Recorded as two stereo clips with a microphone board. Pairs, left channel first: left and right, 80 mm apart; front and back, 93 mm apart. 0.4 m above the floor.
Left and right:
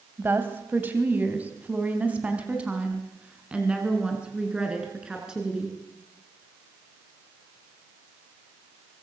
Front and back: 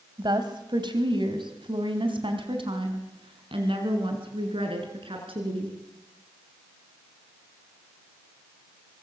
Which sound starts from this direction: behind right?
A woman speaking, at 0.2 s.